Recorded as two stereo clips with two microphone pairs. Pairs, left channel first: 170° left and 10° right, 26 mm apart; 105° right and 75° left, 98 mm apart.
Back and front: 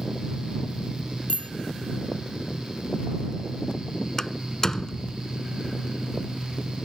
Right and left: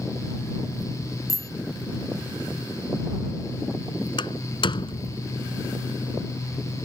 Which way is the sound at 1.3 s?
155° right.